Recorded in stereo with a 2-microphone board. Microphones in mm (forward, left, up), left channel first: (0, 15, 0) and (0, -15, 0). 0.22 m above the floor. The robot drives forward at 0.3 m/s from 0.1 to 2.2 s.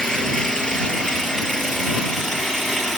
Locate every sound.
0.0 s an engine running: 20° left (ahead or behind), 3.5 m; by 3.0 s 15° left (ahead or behind), 4 m